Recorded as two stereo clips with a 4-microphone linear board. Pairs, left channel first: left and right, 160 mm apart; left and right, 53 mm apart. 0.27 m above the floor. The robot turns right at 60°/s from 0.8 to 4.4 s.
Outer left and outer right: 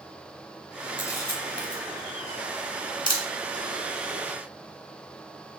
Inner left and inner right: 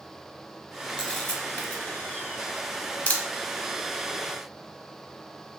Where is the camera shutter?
15° left (ahead or behind), 0.7 m; by 3.2 s 20° left (ahead or behind), 0.7 m.